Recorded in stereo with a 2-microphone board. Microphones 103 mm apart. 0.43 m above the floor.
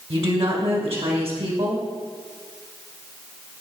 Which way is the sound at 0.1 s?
65° right (ahead or behind).